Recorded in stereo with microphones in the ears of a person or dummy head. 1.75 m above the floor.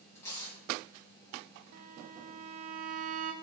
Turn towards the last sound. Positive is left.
turn(degrees=-45)  # may be behind; listen again after turning